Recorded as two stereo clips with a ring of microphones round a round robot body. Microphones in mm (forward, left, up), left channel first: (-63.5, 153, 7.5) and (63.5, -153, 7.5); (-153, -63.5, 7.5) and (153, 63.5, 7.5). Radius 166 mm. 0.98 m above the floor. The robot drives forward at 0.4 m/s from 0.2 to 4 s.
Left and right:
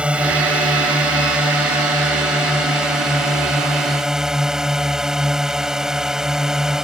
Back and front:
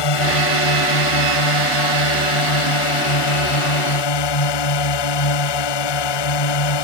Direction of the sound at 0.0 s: 155° right.